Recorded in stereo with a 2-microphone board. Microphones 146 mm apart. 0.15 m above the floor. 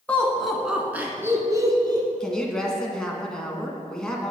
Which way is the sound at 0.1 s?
10° left (ahead or behind).